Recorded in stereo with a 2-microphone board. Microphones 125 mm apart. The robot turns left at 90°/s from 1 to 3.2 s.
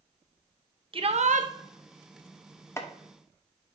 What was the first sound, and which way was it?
A shout, 45° right.